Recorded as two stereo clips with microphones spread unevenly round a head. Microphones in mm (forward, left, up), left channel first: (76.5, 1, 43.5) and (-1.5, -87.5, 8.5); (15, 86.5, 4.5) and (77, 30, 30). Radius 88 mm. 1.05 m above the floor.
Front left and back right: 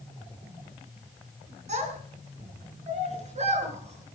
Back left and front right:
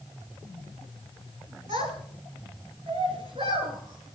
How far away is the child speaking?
About 7.5 m.